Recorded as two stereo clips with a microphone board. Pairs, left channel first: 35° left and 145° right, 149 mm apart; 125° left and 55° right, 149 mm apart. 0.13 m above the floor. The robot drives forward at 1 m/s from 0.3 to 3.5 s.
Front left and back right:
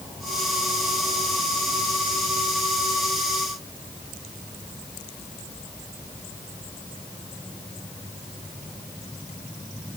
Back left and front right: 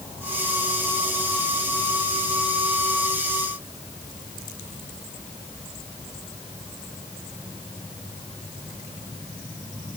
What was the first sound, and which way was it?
Only background noise.